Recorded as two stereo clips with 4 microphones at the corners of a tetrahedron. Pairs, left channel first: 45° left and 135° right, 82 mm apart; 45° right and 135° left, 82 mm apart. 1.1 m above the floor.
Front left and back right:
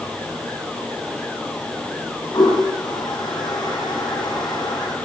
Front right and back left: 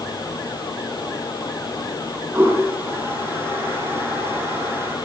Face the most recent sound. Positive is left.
turn(degrees=75)